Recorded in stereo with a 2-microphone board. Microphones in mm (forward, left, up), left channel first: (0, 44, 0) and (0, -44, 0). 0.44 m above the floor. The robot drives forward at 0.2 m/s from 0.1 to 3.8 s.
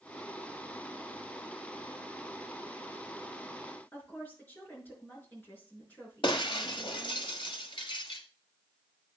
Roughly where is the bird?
No bird in this recording.